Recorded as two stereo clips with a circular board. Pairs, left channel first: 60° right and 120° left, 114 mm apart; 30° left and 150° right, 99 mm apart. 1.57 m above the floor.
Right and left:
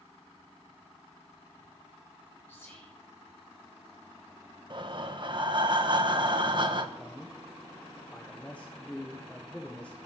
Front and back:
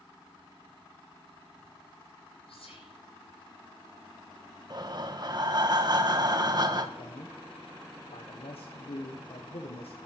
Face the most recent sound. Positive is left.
turn(degrees=20)